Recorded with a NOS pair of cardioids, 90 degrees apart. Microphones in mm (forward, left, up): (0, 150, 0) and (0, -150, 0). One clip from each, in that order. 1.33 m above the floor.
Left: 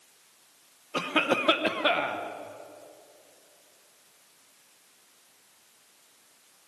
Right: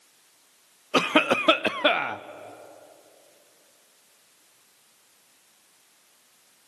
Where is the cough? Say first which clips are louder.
Right 5 dB; 55° right, 0.9 m.